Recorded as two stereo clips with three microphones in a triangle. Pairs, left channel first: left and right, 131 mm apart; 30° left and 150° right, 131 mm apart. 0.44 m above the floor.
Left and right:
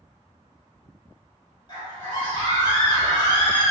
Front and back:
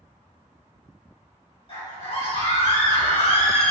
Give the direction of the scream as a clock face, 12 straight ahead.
10 o'clock.